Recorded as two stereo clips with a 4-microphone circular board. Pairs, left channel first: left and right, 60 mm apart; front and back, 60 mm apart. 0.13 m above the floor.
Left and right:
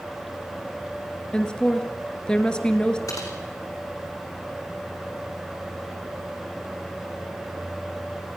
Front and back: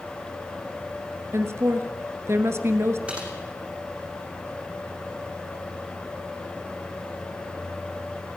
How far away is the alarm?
No alarm in this recording.